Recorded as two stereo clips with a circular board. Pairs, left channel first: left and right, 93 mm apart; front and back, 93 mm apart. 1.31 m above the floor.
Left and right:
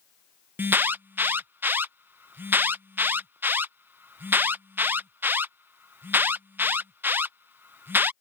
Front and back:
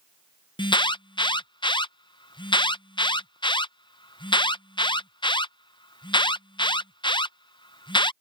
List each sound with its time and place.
0.6 s an alarm: 25° right